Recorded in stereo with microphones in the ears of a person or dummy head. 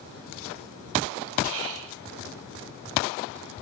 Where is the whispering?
75° right (ahead or behind), 0.9 m.